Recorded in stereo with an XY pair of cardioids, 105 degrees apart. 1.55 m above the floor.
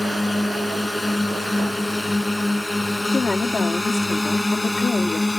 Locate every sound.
0.0 s a drone: 10° left
3.1 s a woman speaking: 30° left